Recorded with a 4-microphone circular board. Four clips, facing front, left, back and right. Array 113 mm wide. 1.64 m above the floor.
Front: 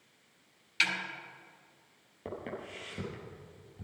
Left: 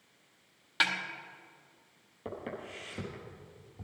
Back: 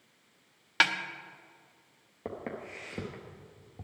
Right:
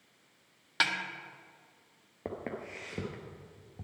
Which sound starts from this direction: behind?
A snare drum, at 0.8 s.